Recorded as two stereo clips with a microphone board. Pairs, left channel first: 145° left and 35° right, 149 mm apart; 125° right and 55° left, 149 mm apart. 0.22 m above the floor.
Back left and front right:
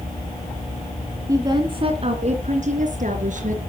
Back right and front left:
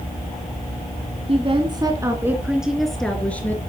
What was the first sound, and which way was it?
A woman speaking, 25° left.